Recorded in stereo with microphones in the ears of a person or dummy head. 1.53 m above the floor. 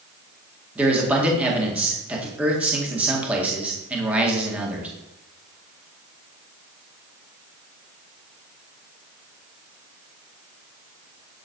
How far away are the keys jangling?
No keys jangling in this recording.